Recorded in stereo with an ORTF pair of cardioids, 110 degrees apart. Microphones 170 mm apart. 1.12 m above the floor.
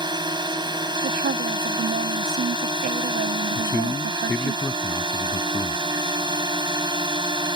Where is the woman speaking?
65° right.